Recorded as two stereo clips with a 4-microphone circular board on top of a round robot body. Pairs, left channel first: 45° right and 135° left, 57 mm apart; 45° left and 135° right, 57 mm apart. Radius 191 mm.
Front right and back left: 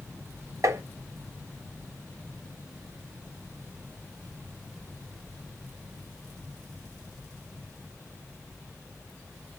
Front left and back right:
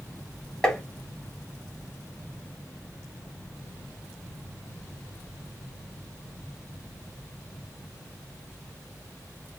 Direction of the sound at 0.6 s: 125° left.